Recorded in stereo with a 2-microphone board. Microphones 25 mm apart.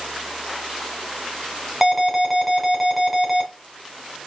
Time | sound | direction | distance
1.8 | an alarm | 5° right (ahead or behind) | 2.5 m